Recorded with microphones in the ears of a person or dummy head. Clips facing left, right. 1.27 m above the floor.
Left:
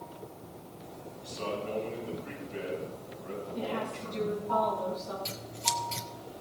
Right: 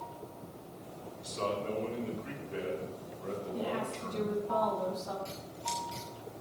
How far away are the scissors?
About 1.7 m.